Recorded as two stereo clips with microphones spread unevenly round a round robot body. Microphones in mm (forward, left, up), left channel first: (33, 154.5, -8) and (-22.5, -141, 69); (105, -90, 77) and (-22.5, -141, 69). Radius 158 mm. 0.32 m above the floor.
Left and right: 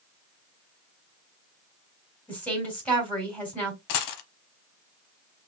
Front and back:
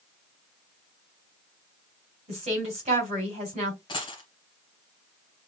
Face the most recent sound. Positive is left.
turn(degrees=85)